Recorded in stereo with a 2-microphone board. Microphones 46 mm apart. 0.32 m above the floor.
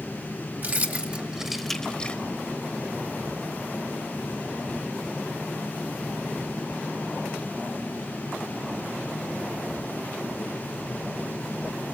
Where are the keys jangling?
40° right (ahead or behind), 1.5 m; by 2.2 s 35° left (ahead or behind), 1.1 m.